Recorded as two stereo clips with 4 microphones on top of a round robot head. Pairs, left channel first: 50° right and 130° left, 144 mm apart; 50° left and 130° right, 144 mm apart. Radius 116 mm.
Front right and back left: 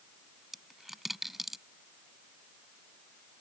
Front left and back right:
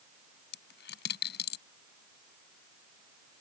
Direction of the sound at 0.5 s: 45° left.